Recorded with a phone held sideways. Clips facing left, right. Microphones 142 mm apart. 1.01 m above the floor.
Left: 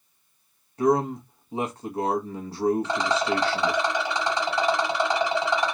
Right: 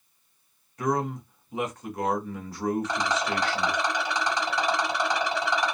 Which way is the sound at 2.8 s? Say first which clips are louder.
Left 3 dB; 25° left (ahead or behind).